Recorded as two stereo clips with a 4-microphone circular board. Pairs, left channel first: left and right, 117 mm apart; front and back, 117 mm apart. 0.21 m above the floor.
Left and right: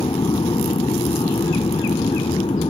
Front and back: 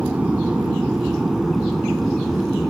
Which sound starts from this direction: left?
An aircraft, at 0.0 s.